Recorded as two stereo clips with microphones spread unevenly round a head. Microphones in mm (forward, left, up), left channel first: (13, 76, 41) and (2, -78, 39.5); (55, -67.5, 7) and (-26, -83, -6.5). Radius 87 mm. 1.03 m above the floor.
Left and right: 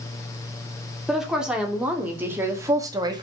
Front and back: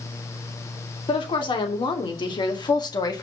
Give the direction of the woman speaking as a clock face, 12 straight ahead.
12 o'clock.